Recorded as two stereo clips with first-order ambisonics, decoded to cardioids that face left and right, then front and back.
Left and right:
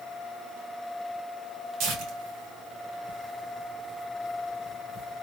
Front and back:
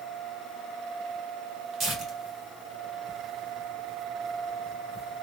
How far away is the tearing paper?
About 1.7 m.